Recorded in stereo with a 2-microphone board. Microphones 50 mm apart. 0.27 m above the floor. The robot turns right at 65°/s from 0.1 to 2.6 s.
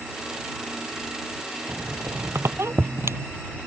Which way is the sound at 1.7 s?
55° right (ahead or behind).